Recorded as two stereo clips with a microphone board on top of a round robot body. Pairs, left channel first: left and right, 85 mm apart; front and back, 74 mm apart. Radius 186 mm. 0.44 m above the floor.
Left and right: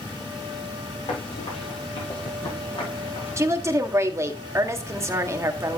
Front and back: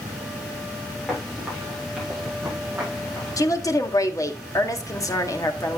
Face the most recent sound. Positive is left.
turn(degrees=-35)